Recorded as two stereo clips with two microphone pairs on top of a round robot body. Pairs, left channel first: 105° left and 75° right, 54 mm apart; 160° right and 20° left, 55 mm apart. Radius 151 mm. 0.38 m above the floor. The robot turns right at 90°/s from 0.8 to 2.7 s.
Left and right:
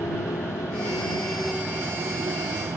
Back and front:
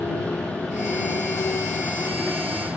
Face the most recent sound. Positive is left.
turn(degrees=-55)